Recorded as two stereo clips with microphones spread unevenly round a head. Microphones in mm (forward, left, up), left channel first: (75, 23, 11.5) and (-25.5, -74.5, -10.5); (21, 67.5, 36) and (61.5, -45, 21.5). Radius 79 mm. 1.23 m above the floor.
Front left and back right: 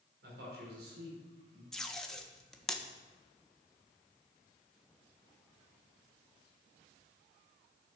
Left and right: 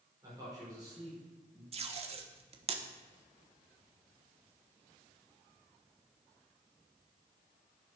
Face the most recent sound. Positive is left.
turn(degrees=-45)